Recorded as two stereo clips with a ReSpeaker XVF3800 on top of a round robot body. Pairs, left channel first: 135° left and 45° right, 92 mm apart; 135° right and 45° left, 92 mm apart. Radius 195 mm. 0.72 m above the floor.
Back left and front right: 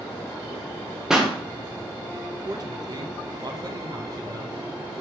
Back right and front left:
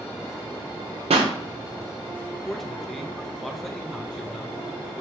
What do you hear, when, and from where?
1.1 s a pop: 40° left, 0.8 m
2.5 s a man speaking: 50° right, 1.2 m